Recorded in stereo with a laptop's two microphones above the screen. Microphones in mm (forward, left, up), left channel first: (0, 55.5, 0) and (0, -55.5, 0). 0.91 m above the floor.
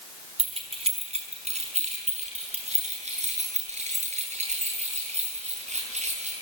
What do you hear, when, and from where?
0.4 s keys jangling: 55° right (ahead or behind), 4 m; by 6.3 s 80° right, 13 m